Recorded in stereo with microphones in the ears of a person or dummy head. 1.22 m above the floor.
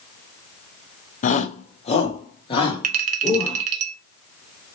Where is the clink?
45° right (ahead or behind), 1.5 m.